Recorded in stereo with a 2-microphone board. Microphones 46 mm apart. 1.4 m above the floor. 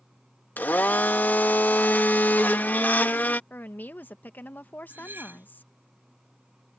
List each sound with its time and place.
0.6 s a blender: 40° left (ahead or behind)
3.5 s a woman speaking: 40° left (ahead or behind)
4.9 s cutlery clinking: 45° right (ahead or behind)